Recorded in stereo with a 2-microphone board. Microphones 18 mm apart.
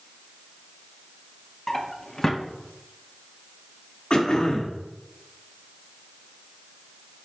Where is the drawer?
25° left (ahead or behind), 0.6 m.